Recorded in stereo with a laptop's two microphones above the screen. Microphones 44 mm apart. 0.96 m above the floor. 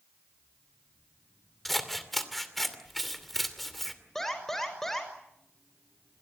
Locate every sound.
1.6 s scissors: 5° left (ahead or behind), 2.5 m
4.2 s an alarm: 10° left (ahead or behind), 6 m